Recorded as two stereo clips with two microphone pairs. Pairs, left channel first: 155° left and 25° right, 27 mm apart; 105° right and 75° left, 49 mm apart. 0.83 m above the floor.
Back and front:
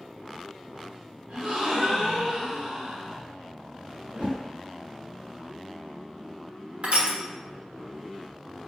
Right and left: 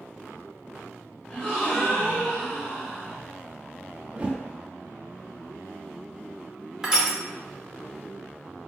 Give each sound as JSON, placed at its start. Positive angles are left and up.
{"t": 1.3, "sound": "a gasp", "azimuth_deg": -40, "distance_m": 1.6}
{"t": 4.1, "sound": "a whoosh", "azimuth_deg": 10, "distance_m": 1.2}
{"t": 6.8, "sound": "crushing", "azimuth_deg": 0, "distance_m": 1.0}